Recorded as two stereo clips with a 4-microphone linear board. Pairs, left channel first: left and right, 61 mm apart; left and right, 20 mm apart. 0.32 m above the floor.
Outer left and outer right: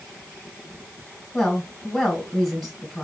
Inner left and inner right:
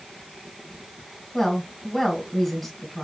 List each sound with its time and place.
1.3 s a woman speaking: centre (ahead or behind), 2.0 m